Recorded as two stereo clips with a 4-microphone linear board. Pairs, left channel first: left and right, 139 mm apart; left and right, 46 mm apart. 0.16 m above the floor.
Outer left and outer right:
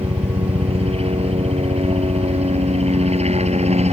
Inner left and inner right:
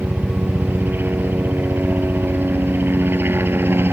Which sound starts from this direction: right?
A helicopter, at 0.0 s.